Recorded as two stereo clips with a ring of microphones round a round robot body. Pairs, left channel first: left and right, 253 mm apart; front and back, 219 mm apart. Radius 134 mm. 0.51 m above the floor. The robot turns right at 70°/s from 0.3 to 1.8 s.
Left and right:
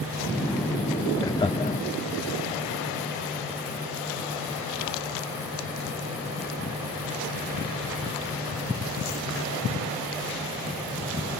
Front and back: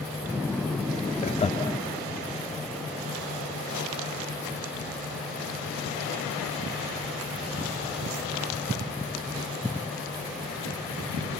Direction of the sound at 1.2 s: 20° left.